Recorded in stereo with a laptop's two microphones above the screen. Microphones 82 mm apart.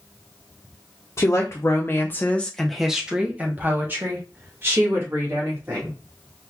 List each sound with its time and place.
1.2 s a woman speaking: 40° left (ahead or behind), 0.8 m; by 6.0 s 35° right (ahead or behind), 2 m